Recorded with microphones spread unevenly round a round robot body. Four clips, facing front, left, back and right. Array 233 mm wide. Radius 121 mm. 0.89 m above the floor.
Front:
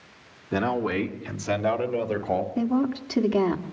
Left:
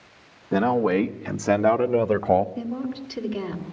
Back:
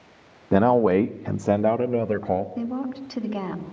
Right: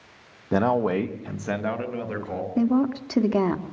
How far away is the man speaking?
About 1.3 m.